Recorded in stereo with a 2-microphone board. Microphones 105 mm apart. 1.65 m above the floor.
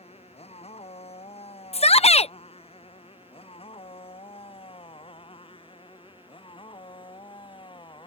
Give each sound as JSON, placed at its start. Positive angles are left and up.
{"t": 0.0, "sound": "a motorcycle", "side_deg": 80}
{"t": 1.7, "sound": "a shout", "side_deg": 80}